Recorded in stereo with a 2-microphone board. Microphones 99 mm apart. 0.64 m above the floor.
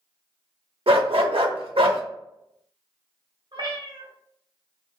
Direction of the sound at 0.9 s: 80° right.